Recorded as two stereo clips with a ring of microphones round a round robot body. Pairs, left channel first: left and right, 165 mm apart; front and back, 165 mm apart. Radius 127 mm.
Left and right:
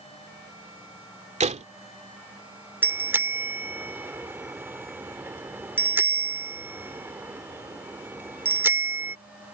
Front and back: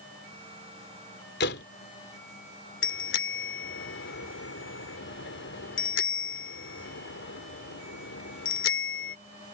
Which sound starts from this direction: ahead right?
A door slam, at 1.4 s.